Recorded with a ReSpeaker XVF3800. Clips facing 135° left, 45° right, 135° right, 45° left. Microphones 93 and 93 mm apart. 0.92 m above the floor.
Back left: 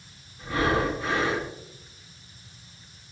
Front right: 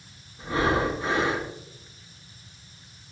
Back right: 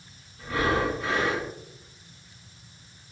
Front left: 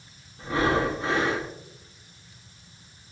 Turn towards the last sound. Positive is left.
turn(degrees=0)